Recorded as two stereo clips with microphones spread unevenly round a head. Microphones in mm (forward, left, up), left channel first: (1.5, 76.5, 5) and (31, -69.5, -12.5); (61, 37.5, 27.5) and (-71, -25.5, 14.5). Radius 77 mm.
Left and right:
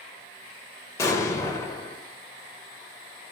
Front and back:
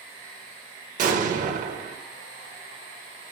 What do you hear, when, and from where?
1.0 s an explosion: 170° left, 0.5 m